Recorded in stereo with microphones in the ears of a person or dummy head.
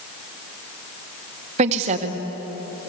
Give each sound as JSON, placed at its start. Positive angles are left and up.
{"t": 1.6, "sound": "a woman speaking", "side_deg": -40, "distance_m": 1.7}